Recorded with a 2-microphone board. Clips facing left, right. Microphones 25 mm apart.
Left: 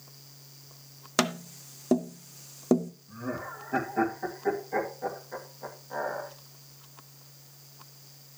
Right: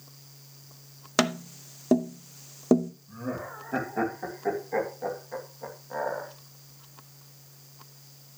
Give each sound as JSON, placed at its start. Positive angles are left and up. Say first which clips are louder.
{"t": 1.2, "sound": "tapping", "louder": "right 2 dB", "side_deg": -10, "distance_m": 0.7}
{"t": 3.1, "sound": "laughter", "louder": "left 1 dB", "side_deg": -5, "distance_m": 2.0}